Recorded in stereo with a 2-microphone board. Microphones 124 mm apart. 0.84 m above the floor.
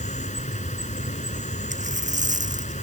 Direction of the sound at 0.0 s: 75° left (ahead or behind).